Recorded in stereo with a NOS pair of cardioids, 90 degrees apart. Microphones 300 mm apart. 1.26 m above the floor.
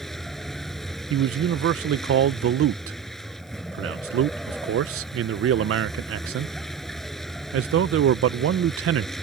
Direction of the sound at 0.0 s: Straight ahead.